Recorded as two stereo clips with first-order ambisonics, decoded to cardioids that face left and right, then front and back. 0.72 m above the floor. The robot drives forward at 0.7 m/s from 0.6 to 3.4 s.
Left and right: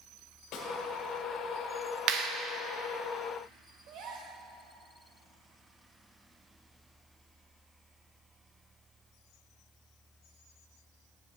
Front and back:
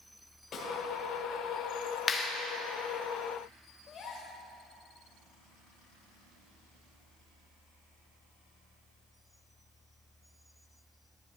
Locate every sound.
0.5 s a snare drum: 55° left, 1.4 m; by 0.7 s 60° left, 1.4 m
2.1 s a clap: 65° right, 0.8 m; by 2.3 s 80° right, 0.7 m
3.9 s a gasp: 60° right, 1.0 m